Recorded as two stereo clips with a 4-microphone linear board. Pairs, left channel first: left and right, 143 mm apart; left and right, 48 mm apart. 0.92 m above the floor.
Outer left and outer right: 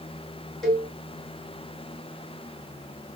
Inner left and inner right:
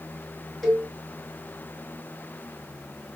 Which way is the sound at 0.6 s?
Centre (ahead or behind).